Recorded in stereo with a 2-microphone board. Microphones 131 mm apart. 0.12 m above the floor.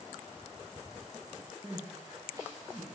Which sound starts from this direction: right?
Crying, at 1.6 s.